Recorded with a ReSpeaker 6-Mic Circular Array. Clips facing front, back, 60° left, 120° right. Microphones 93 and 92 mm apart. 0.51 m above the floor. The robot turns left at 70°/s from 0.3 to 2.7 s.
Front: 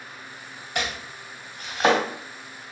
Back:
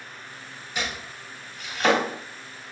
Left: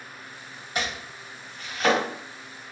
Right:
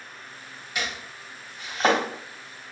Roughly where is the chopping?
Ahead.